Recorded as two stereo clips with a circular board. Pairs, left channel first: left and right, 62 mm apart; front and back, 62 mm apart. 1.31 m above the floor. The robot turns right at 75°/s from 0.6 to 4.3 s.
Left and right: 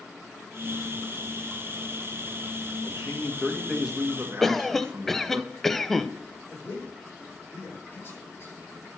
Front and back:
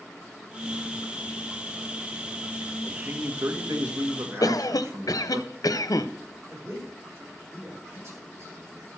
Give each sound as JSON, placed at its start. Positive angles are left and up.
{"t": 2.8, "sound": "a man speaking", "azimuth_deg": 115, "distance_m": 1.8}
{"t": 4.4, "sound": "a cough", "azimuth_deg": 5, "distance_m": 0.7}
{"t": 6.5, "sound": "a man speaking", "azimuth_deg": 140, "distance_m": 5.5}